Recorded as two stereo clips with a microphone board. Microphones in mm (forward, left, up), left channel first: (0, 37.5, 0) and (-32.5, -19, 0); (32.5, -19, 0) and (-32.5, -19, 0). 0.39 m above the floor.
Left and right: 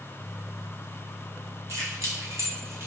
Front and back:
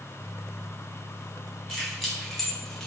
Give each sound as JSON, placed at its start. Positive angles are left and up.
{"t": 1.7, "sound": "keys jangling", "azimuth_deg": -90, "distance_m": 1.9}